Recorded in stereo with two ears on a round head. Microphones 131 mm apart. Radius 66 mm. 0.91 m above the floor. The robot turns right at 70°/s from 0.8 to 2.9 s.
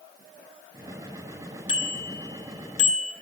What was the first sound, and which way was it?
A bicycle bell, 35° left.